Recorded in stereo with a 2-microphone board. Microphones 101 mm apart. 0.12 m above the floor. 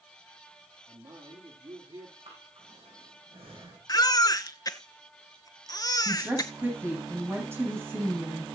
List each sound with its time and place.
0.9 s a man speaking: 60° right (ahead or behind), 3 m; by 2.1 s 50° right (ahead or behind), 2.5 m
2.2 s breathing: 65° right (ahead or behind), 6.5 m
3.9 s a baby crying: 40° left (ahead or behind), 0.7 m
6.0 s a woman speaking: 25° right (ahead or behind), 6.5 m